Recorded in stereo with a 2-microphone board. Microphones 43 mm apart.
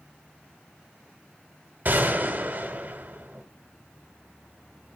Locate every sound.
1.9 s a gunshot: 50° right (ahead or behind), 1.5 m